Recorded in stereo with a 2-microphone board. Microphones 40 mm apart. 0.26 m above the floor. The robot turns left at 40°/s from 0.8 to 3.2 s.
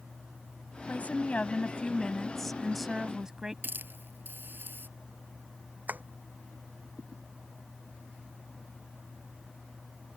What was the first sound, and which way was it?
A woman speaking, 75° left.